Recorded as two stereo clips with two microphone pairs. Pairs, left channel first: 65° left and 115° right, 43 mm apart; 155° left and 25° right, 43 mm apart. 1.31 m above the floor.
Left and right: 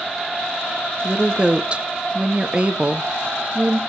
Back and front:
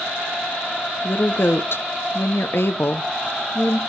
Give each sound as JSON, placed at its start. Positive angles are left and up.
{"t": 1.0, "sound": "a woman speaking", "azimuth_deg": 180, "distance_m": 0.6}